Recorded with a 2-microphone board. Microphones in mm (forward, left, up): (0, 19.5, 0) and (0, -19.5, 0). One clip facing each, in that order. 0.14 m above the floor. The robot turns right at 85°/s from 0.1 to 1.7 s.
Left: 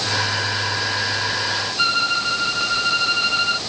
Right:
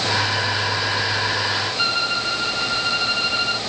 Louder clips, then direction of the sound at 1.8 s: Left 6 dB; 10° left (ahead or behind).